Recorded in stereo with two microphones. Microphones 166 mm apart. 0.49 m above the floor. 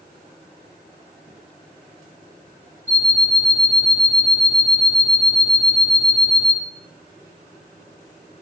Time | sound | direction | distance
2.9 | an alarm clock | 45° right (ahead or behind) | 2.5 m